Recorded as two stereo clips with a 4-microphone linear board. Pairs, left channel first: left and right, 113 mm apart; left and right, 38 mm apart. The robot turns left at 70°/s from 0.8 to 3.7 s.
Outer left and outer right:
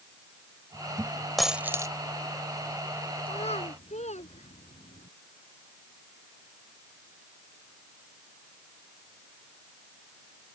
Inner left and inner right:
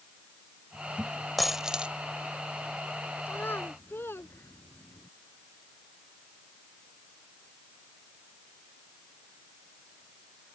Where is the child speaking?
50° left (ahead or behind); by 5.1 s 80° left.